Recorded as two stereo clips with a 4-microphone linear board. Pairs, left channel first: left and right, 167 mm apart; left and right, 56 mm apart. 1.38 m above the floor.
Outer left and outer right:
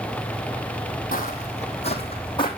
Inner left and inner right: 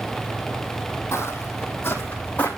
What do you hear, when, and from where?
1.1 s footsteps: 55° left (ahead or behind), 3 m; by 2.5 s 30° left (ahead or behind), 4 m